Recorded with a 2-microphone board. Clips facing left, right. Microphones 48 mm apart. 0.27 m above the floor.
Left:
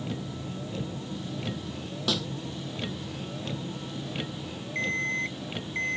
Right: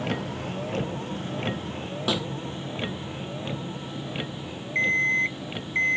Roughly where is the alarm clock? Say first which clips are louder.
Right 7 dB; right.